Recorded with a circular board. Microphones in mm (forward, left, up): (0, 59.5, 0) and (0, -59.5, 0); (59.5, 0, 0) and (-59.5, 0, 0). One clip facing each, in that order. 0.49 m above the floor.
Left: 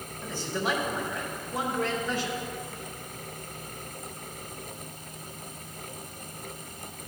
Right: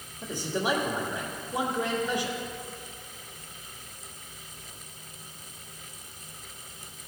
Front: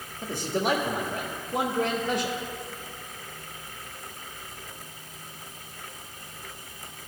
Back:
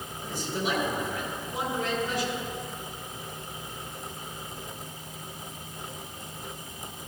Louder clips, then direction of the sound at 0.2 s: Right 1 dB, front 4 dB; 20° right.